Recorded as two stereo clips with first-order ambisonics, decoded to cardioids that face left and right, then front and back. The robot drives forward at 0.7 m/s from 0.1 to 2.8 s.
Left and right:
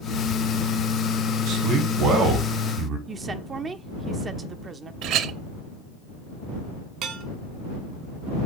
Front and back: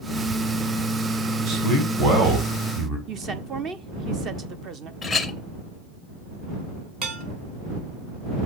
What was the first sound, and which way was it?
A man speaking, 130° right.